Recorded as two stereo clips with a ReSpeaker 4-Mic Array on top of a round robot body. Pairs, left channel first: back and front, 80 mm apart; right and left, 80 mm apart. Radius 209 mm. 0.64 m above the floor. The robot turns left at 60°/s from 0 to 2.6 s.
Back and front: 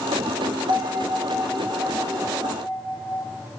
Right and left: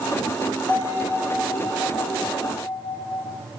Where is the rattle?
I don't hear a rattle.